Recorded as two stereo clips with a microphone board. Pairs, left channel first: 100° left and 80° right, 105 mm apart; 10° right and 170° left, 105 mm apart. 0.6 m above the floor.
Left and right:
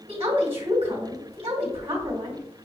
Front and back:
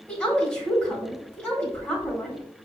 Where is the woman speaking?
95° right, 1.7 m.